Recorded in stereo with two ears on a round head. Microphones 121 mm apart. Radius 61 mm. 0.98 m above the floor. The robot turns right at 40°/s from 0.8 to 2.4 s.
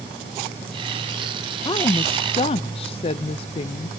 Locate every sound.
1.6 s a woman speaking: 40° left, 0.5 m; by 3.9 s 70° left, 0.5 m